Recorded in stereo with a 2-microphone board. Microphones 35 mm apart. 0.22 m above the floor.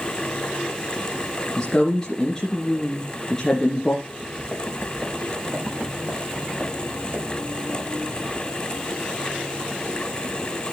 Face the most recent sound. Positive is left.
turn(degrees=-20)  # may be behind; listen again after turning